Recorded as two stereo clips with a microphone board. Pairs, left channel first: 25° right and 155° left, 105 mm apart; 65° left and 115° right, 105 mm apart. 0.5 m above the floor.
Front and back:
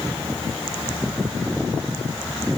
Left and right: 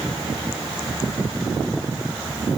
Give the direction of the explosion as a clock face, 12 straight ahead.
I don't hear an explosion.